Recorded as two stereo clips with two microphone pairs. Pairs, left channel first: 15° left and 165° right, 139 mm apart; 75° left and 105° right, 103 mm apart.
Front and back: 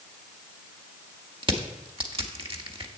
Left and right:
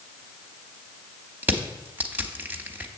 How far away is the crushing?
About 0.7 m.